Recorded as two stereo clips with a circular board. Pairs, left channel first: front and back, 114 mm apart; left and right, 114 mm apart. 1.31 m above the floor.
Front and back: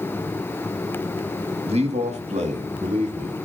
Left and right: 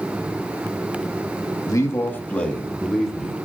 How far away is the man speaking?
About 1.9 m.